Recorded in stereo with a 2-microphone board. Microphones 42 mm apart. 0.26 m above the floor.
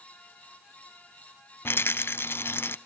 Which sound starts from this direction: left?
A rattle, at 1.6 s.